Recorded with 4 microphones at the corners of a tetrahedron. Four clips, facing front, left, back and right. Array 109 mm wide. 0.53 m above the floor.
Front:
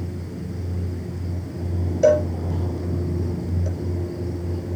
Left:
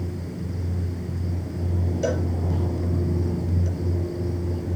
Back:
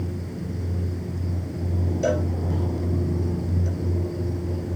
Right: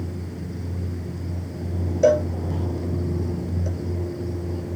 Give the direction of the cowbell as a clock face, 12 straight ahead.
1 o'clock.